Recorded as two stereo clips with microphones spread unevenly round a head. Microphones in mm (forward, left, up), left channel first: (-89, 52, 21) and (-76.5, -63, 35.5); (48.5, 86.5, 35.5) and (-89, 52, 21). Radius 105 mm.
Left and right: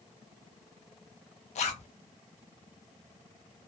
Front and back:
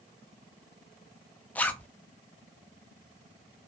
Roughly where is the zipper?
Left.